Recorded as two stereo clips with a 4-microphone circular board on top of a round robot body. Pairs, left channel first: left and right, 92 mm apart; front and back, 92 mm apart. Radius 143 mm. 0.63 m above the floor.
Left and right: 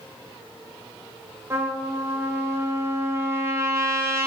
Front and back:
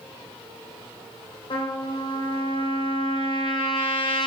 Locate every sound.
1.5 s a trumpet: 30° right, 2.5 m